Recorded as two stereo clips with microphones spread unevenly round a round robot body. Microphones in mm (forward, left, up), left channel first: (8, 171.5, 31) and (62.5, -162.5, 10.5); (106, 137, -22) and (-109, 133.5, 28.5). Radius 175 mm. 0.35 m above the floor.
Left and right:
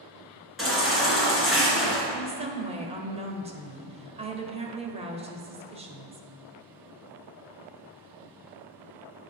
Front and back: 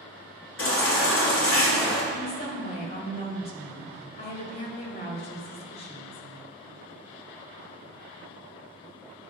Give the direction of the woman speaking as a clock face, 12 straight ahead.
1 o'clock.